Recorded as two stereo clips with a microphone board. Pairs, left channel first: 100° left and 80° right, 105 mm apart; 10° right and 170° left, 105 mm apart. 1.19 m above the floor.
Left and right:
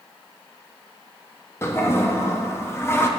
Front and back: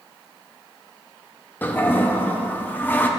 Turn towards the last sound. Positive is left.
turn(degrees=50)